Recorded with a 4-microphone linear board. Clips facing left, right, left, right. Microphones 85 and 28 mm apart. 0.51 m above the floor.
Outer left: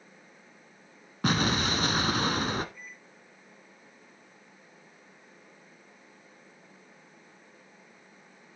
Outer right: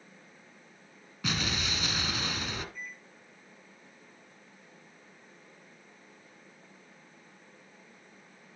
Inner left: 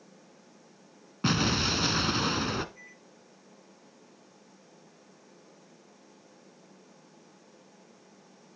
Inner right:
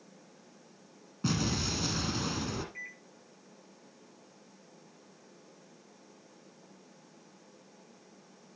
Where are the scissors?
No scissors in this recording.